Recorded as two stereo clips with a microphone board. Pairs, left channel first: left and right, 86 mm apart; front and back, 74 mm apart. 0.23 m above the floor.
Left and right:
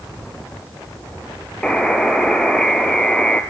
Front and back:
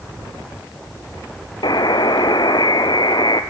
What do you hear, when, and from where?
1.6 s a buzzer: 10° left, 1.4 m